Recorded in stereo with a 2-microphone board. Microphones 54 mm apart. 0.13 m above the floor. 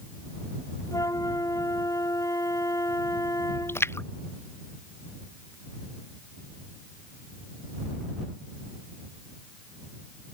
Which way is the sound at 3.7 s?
45° left (ahead or behind).